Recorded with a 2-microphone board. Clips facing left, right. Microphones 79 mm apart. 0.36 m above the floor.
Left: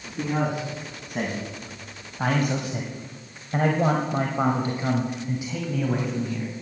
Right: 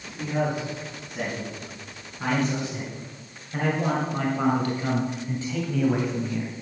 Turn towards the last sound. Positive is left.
turn(degrees=-5)  # may be behind; listen again after turning